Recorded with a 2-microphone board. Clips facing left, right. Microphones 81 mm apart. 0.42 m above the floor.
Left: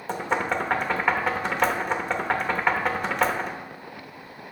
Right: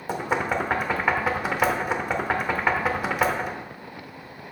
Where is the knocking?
5° right (ahead or behind), 0.8 m.